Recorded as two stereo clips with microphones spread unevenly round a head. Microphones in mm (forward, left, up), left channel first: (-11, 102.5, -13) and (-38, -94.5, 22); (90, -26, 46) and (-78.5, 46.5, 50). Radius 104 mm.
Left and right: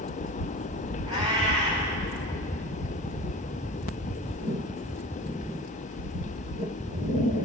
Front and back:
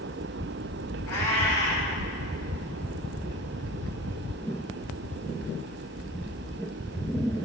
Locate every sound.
1.1 s a cat meowing: 30° right, 4 m